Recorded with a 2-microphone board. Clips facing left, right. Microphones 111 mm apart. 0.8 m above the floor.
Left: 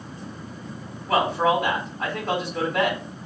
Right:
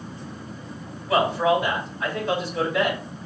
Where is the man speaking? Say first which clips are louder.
Right 1 dB; 50° left (ahead or behind), 2.5 m.